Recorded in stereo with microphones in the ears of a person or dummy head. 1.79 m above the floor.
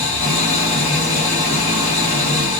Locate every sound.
0.0 s an engine running: 10° left (ahead or behind), 1.2 m